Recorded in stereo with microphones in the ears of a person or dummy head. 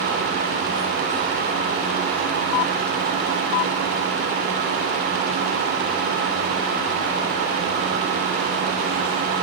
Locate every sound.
Only background noise.